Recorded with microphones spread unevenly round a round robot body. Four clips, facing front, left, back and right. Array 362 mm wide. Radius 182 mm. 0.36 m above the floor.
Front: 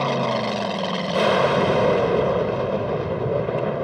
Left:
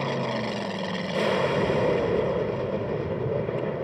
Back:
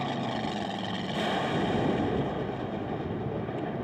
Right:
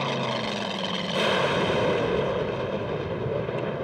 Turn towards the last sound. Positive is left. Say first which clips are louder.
# even, front 9 dB
turn(degrees=10)